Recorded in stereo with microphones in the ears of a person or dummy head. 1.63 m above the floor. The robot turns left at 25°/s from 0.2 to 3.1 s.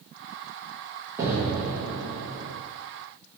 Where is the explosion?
170° right, 1.3 m; by 2.5 s 160° left, 1.3 m.